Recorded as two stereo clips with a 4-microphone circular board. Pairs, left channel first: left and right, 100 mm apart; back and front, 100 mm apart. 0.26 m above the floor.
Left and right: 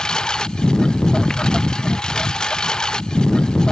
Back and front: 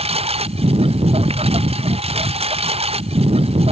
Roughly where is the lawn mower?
Ahead.